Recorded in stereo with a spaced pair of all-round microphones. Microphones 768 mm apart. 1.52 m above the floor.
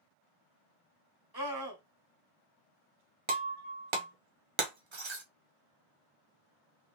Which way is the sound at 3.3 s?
40° right (ahead or behind).